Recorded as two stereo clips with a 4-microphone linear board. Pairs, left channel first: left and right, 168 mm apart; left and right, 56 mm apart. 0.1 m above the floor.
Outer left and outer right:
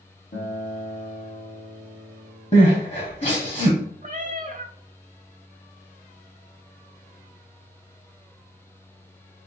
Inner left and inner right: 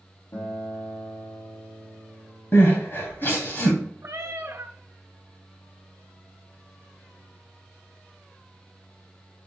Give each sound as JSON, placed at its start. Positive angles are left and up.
{"t": 0.3, "sound": "a guitar", "side_deg": 65, "distance_m": 2.0}
{"t": 2.5, "sound": "crying", "side_deg": 40, "distance_m": 2.0}
{"t": 4.0, "sound": "a cat meowing", "side_deg": -50, "distance_m": 0.5}